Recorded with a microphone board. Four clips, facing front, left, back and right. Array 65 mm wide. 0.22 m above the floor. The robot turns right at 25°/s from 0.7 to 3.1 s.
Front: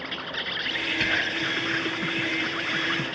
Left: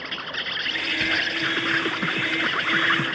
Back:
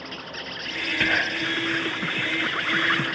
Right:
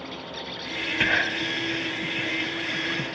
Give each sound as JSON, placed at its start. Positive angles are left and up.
{"t": 0.0, "sound": "an insect", "azimuth_deg": 65}
{"t": 1.0, "sound": "whispering", "azimuth_deg": -135}